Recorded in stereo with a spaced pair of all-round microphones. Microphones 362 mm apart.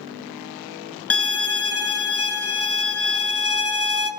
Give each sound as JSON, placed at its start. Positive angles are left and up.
{"t": 1.1, "sound": "a violin", "side_deg": 40, "distance_m": 1.0}